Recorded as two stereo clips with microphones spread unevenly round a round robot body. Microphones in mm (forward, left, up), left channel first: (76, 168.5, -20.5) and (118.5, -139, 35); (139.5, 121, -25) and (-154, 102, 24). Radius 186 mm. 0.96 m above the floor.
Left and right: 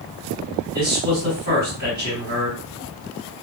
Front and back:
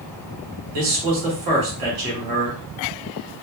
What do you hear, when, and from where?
0.7 s a man speaking: 150° right, 1.5 m